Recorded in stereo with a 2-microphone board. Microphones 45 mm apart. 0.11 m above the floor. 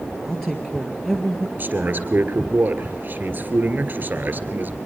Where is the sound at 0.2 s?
10° left (ahead or behind), 1.7 m.